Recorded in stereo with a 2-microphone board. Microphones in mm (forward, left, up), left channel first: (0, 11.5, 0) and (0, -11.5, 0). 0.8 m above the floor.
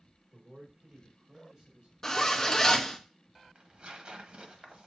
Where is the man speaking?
45° right (ahead or behind), 2.5 m; by 1.9 s 50° right (ahead or behind), 3 m.